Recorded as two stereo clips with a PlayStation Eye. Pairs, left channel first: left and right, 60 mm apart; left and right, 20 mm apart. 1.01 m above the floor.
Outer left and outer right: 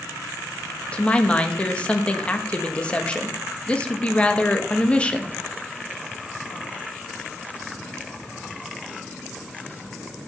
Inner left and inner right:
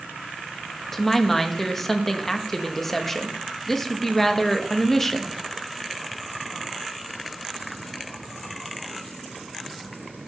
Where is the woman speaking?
20° left (ahead or behind), 1.1 m.